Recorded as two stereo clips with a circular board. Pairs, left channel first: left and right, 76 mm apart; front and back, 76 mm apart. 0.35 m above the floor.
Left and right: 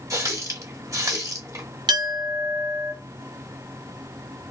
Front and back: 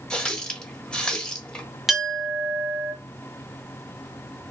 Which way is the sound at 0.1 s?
75° right.